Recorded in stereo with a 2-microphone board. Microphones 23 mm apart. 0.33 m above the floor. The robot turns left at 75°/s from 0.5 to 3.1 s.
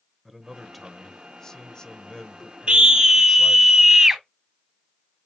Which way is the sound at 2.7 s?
120° right.